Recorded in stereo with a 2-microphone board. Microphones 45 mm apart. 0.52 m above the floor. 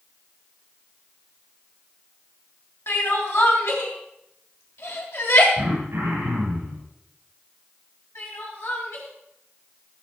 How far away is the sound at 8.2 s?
About 5.5 m.